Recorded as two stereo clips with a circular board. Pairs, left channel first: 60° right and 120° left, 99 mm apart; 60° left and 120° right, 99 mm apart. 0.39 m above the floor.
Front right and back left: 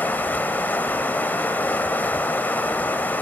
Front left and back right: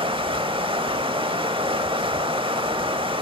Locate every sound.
0.0 s running water: 130° right, 0.8 m